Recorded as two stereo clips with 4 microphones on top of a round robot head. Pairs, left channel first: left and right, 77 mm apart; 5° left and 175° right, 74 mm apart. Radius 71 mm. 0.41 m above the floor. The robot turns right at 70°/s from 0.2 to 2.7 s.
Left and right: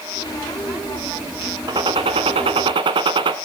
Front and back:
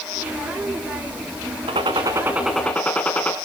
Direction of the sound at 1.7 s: 145° right.